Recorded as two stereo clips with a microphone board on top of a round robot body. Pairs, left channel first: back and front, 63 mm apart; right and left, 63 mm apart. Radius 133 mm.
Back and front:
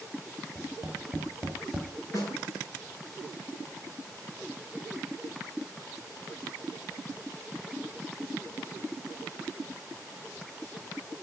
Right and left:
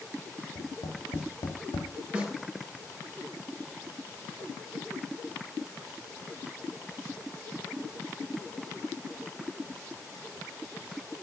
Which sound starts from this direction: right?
Tapping, at 0.6 s.